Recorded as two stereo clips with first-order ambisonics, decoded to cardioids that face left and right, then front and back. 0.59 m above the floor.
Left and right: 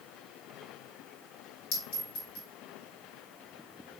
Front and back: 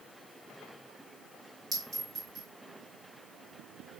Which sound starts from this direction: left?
A clink, at 1.7 s.